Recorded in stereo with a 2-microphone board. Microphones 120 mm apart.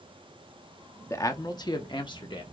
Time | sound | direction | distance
1.1 | a man speaking | 25° left (ahead or behind) | 0.7 m